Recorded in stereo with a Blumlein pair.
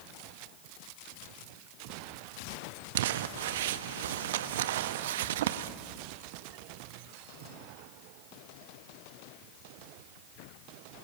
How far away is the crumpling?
About 1.2 m.